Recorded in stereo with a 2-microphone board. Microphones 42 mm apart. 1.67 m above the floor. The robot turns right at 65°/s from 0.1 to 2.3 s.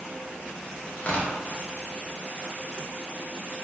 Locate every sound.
1.0 s tearing paper: 40° left (ahead or behind), 0.5 m; by 1.3 s 20° left (ahead or behind), 0.5 m